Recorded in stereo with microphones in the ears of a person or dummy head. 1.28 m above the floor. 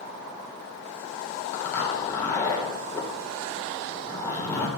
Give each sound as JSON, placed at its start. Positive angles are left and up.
{"t": 1.5, "sound": "a zipper", "side_deg": 10, "distance_m": 3.0}